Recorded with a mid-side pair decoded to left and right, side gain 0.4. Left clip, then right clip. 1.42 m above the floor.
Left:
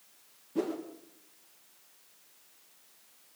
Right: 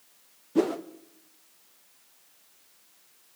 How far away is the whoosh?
About 1.5 m.